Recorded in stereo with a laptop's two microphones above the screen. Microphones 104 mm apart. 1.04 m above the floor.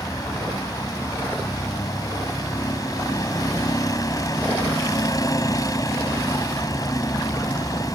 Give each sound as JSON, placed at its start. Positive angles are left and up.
{"t": 0.0, "sound": "a vehicle", "side_deg": 35}